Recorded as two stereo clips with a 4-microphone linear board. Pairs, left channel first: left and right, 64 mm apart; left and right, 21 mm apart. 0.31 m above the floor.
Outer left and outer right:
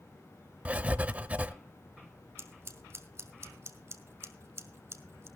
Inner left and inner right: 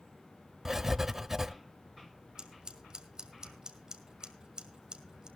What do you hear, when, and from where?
0.7 s writing: 20° right (ahead or behind), 0.7 m
2.4 s scissors: 40° right (ahead or behind), 1.8 m